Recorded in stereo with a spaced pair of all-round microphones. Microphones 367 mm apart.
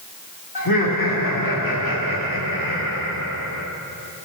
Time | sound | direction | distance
0.6 | laughter | 70° left (ahead or behind) | 2.5 m